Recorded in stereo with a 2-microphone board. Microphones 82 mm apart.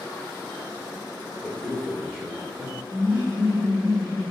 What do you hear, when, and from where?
1.4 s a man speaking: 5° right (ahead or behind), 3 m
2.9 s laughter: 25° right (ahead or behind), 2 m